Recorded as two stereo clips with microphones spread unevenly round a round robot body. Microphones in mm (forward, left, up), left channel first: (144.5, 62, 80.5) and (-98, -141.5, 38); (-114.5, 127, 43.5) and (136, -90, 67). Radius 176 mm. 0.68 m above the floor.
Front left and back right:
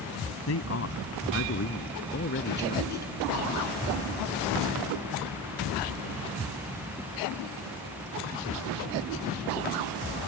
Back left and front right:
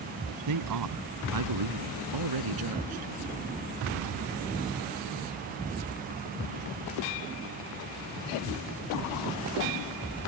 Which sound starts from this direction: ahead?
A man speaking, at 0.5 s.